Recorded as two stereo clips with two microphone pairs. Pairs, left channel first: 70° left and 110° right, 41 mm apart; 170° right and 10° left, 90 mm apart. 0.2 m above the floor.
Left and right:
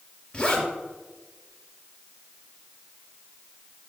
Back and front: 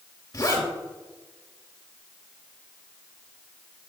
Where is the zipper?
140° left, 3 m.